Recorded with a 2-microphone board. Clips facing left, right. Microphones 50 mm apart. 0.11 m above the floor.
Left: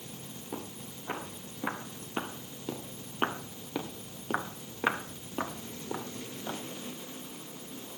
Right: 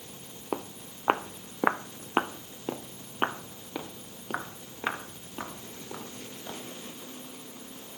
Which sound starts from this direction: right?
Footsteps, at 0.5 s.